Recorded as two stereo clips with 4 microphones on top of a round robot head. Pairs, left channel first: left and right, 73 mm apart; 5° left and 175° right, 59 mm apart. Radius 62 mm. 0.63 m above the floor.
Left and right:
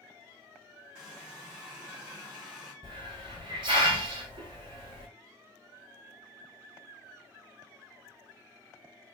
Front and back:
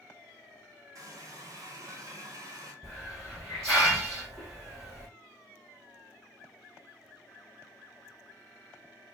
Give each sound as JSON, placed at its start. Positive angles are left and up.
{"t": 0.9, "sound": "a running tap", "azimuth_deg": -170, "distance_m": 1.0}
{"t": 2.8, "sound": "a hiss", "azimuth_deg": -80, "distance_m": 1.1}